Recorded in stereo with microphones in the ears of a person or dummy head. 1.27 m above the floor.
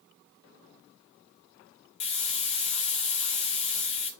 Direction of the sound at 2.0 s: 35° left (ahead or behind).